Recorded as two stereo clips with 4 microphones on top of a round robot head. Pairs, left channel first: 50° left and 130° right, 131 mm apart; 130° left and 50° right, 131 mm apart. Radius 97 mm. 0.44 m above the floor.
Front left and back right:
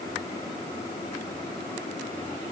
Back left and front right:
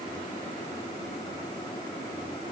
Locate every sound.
Only background noise.